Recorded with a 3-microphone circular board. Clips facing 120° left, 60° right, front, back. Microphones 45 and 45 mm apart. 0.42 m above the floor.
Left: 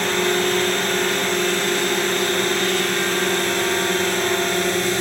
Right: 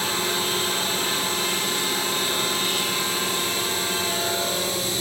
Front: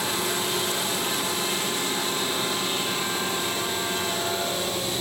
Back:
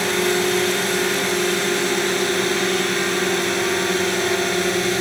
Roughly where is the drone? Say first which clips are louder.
Left 6 dB, back 8 dB; behind left.